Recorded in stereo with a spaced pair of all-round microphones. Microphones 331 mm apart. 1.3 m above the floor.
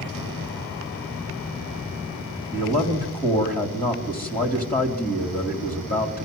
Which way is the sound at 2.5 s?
25° left (ahead or behind).